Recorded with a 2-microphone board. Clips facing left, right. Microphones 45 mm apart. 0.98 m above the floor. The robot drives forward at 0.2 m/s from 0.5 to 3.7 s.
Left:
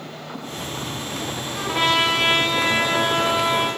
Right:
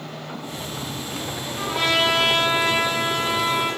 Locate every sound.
1.5 s a trumpet: 20° left (ahead or behind), 0.7 m; by 3.7 s 15° left (ahead or behind), 1.0 m